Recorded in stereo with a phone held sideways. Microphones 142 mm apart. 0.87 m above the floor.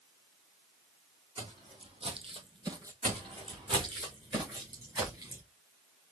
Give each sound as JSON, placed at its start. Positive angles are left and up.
{"t": 1.4, "sound": "footsteps", "side_deg": -35, "distance_m": 1.9}
{"t": 3.0, "sound": "footsteps", "side_deg": -45, "distance_m": 2.5}